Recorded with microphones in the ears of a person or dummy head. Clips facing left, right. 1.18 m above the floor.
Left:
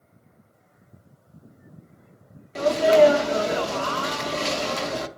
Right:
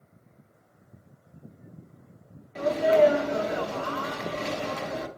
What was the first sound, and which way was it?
A sneeze, 60° left (ahead or behind).